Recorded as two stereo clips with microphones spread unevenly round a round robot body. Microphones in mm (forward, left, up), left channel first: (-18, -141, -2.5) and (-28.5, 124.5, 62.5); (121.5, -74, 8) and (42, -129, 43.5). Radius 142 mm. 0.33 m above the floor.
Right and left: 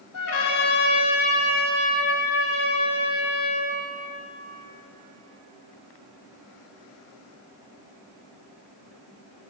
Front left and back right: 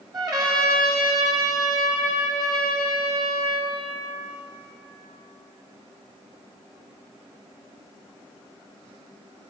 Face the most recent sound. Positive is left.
turn(degrees=-85)